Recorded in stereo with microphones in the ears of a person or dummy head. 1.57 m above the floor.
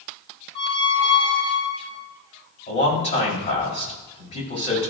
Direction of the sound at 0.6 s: 30° left (ahead or behind).